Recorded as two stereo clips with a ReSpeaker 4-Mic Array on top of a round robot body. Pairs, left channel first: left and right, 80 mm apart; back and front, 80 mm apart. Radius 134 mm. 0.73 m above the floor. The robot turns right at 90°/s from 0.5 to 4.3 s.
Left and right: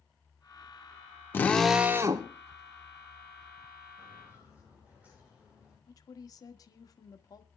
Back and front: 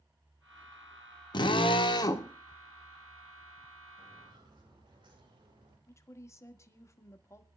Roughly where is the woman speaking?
Behind left.